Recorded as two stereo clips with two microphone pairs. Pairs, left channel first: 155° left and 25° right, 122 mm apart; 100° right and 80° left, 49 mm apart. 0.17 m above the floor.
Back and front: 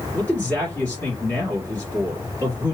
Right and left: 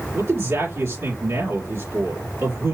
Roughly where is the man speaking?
Left.